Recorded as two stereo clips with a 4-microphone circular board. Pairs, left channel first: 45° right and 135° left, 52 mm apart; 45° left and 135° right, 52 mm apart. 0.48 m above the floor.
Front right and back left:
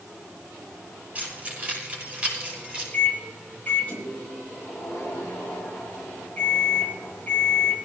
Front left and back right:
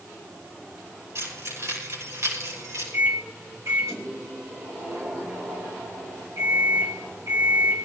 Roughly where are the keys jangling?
Behind.